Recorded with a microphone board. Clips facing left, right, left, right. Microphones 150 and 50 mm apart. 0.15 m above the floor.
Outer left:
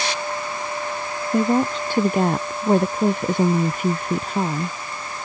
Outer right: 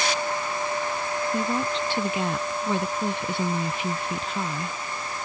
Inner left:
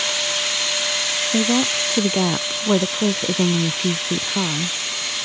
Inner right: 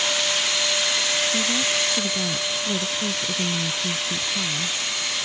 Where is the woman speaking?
50° left (ahead or behind).